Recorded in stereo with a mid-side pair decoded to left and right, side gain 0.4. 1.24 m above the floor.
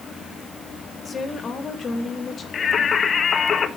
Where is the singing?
55° left, 1.3 m.